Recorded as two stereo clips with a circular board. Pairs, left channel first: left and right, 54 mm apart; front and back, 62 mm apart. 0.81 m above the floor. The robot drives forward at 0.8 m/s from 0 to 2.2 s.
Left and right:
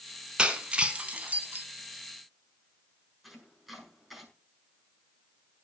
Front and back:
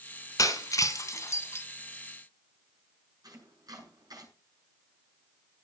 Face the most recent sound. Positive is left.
turn(degrees=180)